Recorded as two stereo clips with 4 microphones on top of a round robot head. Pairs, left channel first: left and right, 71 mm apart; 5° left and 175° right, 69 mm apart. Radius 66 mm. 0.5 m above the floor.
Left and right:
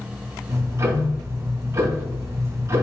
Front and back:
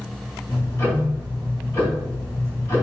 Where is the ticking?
50° right, 3 m.